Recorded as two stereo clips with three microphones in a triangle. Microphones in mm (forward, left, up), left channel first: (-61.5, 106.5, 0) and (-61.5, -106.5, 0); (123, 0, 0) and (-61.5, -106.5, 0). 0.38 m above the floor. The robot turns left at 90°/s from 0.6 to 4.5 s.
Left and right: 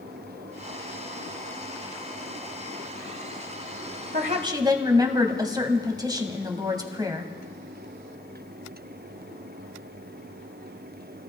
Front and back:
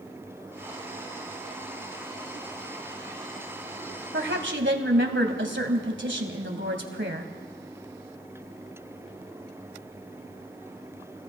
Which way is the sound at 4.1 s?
130° right.